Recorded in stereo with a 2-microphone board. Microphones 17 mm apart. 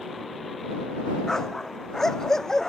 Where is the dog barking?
35° left (ahead or behind).